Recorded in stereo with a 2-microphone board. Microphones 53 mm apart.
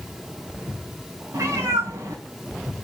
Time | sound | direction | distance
1.3 | a cat meowing | 85° right | 3 m